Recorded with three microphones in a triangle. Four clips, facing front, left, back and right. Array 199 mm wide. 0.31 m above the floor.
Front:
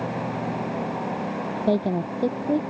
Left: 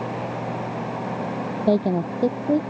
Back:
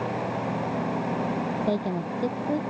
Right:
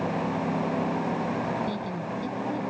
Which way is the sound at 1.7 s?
60° left.